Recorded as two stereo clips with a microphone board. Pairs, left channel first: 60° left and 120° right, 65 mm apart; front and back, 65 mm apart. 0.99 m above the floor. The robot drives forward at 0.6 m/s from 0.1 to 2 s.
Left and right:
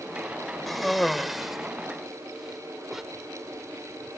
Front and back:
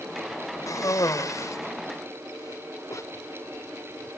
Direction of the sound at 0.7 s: 25° right.